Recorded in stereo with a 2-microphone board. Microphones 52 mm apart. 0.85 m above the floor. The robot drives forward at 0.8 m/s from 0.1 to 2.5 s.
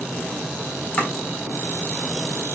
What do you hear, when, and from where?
1.0 s chopping: 25° left (ahead or behind), 2.5 m